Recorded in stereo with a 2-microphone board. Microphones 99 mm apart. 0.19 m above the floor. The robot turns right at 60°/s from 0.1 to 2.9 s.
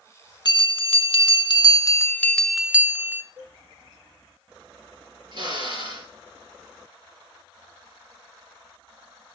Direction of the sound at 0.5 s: 55° left.